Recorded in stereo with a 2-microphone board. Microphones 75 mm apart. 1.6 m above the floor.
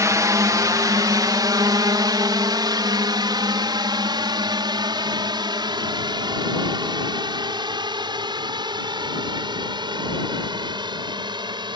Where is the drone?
45° right (ahead or behind); by 11.8 s 85° right.